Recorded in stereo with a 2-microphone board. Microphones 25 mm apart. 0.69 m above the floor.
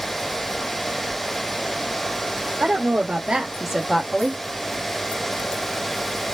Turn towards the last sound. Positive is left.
turn(degrees=35)  # may be behind; listen again after turning